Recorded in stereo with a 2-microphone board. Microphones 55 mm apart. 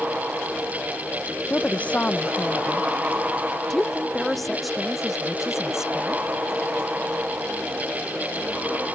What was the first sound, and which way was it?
A woman speaking, 30° left (ahead or behind).